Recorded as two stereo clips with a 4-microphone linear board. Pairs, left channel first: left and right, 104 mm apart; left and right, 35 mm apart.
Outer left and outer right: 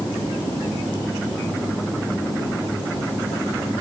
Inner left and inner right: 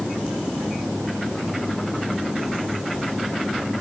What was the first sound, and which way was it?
Only background noise.